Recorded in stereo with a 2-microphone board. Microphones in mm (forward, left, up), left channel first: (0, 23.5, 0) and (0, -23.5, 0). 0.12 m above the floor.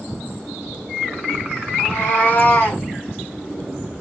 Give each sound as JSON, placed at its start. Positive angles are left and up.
{"t": 1.8, "sound": "a cat meowing", "side_deg": 45, "distance_m": 1.6}